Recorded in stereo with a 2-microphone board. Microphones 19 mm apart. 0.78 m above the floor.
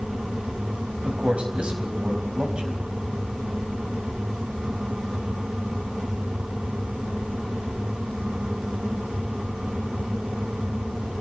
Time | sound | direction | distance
1.0 | a man speaking | 70° right (ahead or behind) | 4 m